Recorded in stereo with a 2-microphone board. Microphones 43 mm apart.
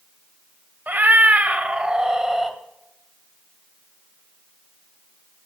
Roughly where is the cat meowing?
Right.